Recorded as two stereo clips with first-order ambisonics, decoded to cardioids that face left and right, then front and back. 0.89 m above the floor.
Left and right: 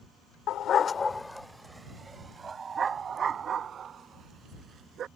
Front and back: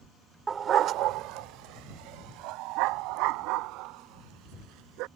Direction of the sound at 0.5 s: 115° left.